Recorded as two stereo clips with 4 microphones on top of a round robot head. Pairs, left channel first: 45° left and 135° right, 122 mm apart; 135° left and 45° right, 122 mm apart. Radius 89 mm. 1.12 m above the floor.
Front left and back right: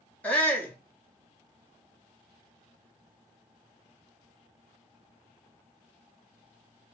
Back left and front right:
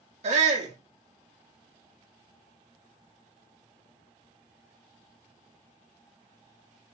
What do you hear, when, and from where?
0.2 s a shout: 35° right, 1.6 m